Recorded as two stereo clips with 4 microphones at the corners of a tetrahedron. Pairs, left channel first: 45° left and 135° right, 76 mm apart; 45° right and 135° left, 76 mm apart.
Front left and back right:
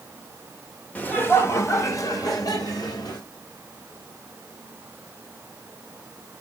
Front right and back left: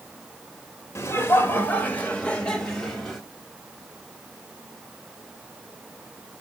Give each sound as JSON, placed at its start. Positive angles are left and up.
{"t": 0.9, "sound": "laughter", "azimuth_deg": -15, "distance_m": 1.3}